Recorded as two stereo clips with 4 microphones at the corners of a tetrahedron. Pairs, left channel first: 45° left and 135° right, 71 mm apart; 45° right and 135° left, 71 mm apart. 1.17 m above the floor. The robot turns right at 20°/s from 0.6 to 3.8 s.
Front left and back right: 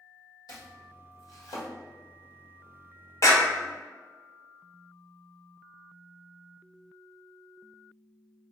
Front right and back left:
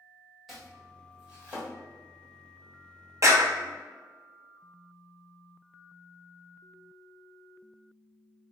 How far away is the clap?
About 1.1 m.